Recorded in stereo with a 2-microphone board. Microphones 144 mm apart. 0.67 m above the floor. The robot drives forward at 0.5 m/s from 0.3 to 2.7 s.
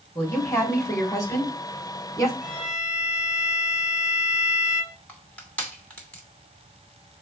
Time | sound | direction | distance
0.1 | a woman speaking | 20° left (ahead or behind) | 3 m
2.4 | a violin | 45° left (ahead or behind) | 2.5 m
5.1 | crushing | 10° left (ahead or behind) | 2.5 m